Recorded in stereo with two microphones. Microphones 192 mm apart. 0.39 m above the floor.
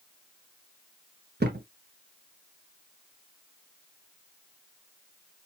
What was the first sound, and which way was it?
A thud, 60° right (ahead or behind).